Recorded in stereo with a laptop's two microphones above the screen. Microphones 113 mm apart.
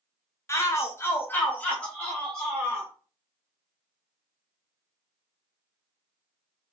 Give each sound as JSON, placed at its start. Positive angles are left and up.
{"t": 0.5, "sound": "a shout", "side_deg": 25, "distance_m": 0.6}